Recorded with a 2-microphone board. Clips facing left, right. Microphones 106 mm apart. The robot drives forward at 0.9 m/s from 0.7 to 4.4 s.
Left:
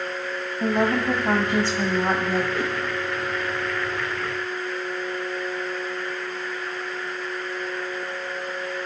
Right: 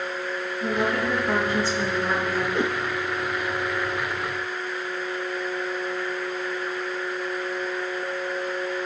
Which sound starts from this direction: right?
A whoosh, at 2.5 s.